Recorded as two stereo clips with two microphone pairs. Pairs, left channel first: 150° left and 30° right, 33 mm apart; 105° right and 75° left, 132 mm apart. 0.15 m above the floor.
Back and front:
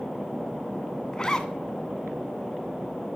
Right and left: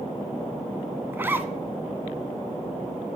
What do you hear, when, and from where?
1.1 s a zipper: 120° left, 0.5 m